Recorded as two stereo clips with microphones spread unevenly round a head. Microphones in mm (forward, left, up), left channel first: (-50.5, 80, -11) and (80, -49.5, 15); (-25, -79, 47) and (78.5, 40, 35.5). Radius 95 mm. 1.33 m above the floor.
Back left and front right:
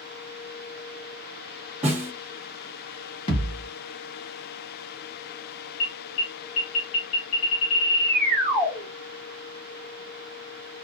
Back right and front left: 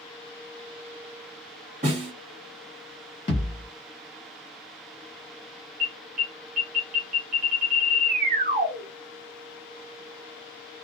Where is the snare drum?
5° left, 1.2 m.